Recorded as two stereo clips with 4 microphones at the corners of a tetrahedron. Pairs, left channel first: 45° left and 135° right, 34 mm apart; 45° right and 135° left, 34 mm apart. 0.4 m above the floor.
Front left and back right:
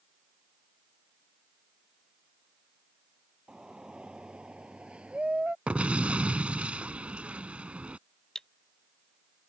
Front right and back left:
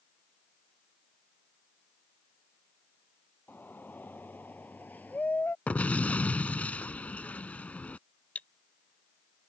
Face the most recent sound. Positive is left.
turn(degrees=-20)